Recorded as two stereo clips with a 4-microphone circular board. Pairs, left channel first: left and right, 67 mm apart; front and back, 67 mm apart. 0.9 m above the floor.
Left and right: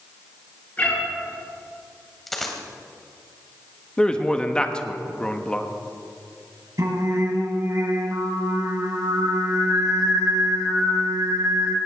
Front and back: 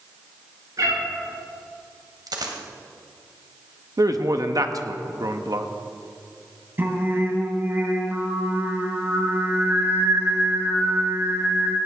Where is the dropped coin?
175° left, 2 m.